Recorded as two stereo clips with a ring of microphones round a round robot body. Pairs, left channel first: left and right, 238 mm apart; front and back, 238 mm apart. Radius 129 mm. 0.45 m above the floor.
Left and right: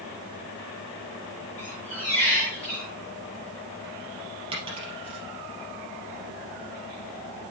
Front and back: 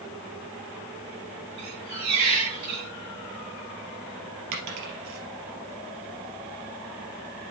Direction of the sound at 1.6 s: 175° left.